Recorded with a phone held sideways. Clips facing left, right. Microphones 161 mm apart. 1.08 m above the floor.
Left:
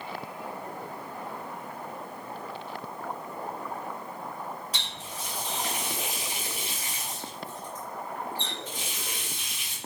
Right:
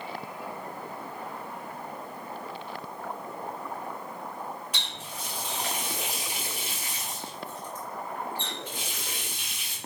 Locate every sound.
4.7 s a running tap: 35° left (ahead or behind), 1.6 m